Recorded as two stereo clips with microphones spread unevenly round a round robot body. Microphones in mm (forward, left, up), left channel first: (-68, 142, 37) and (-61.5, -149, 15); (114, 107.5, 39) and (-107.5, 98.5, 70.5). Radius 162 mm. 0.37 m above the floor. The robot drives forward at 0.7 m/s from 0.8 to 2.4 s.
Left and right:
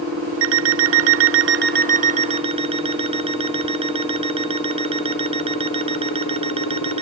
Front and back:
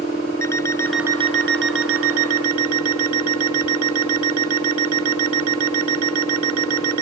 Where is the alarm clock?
65° right; by 7.0 s 155° right.